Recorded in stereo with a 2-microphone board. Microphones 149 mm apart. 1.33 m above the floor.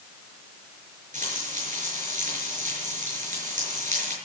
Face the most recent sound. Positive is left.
turn(degrees=-60)  # may be behind; listen again after turning